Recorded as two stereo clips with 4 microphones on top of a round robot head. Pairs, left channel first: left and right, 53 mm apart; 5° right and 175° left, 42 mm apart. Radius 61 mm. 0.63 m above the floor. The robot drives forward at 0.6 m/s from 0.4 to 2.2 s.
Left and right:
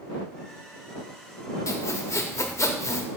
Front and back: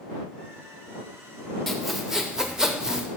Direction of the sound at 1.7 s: 80° left.